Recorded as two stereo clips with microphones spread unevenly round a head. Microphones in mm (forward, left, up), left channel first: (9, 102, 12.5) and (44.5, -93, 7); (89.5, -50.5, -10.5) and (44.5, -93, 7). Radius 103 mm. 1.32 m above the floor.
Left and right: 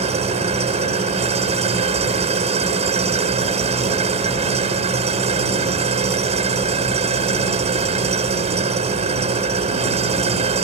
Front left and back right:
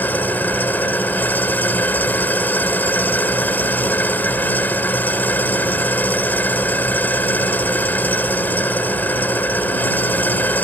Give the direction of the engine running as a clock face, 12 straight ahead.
1 o'clock.